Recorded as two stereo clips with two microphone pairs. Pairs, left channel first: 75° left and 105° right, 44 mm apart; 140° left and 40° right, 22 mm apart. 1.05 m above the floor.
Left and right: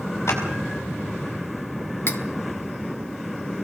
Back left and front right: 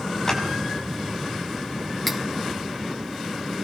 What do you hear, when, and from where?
0.3 s a clap: 75° left, 5 m
2.1 s cutlery clinking: 50° left, 1.1 m